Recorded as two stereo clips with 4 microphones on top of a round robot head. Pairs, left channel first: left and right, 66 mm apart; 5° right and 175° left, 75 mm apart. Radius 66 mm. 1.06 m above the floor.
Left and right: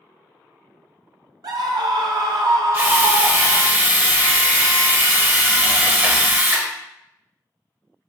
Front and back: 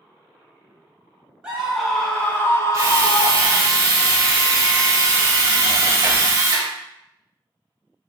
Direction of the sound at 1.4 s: 100° right.